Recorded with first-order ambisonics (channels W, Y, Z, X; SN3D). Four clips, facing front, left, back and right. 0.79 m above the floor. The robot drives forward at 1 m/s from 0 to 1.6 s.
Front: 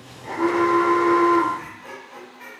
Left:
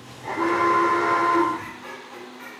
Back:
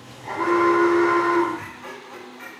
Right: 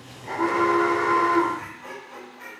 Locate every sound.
0.2 s an alarm: 85° left, 1.4 m; by 1.5 s 130° left, 1.8 m
1.6 s laughter: 150° left, 1.1 m; by 2.6 s 155° left, 1.1 m